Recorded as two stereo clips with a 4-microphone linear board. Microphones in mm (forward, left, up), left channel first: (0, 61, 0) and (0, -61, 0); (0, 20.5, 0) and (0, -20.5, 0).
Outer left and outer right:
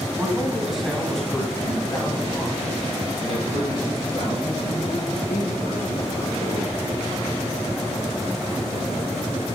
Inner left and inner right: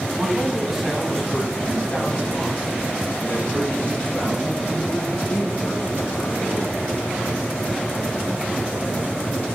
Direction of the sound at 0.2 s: 15° right (ahead or behind).